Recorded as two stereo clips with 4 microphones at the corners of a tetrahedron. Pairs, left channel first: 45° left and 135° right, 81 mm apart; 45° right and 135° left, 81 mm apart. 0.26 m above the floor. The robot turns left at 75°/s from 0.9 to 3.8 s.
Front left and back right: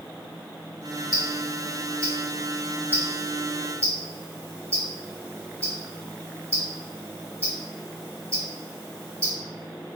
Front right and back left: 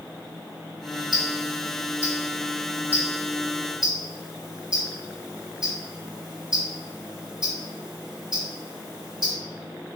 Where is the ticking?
50° left, 1.2 m; by 9.3 s 150° right, 1.2 m.